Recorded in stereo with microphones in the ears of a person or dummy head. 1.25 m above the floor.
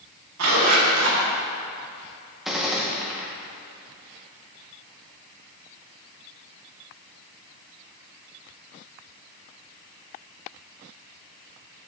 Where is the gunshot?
5° right (ahead or behind), 0.9 m.